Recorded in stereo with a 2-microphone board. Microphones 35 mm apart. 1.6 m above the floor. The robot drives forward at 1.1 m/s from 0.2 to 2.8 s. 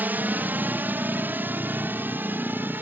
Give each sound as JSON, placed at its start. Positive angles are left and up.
{"t": 0.0, "sound": "a drone", "side_deg": -65}